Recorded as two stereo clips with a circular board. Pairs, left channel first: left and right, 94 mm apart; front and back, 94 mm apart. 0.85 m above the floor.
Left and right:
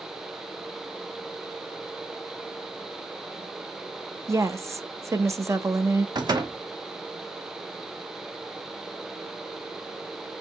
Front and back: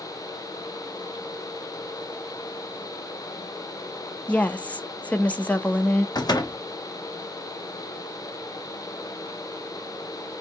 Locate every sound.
4.3 s a woman speaking: 65° right, 0.5 m
6.2 s a door slam: 45° right, 0.8 m